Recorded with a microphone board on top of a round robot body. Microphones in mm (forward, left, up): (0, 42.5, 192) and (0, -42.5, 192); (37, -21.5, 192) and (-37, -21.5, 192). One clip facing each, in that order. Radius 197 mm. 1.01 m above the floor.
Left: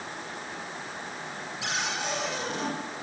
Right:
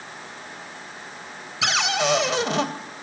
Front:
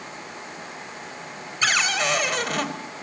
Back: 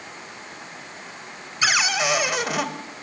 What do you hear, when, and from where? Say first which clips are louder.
1.6 s a cupboard door: right 10 dB, back 1 dB; 95° right, 2.5 m